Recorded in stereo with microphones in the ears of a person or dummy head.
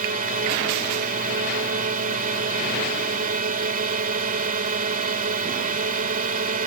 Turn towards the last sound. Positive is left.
turn(degrees=-35)  # may be behind; listen again after turning